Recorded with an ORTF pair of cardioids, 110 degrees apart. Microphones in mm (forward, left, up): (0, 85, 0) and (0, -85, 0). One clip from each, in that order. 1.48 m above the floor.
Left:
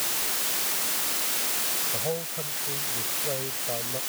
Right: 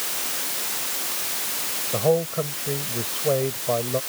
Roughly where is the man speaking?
Ahead right.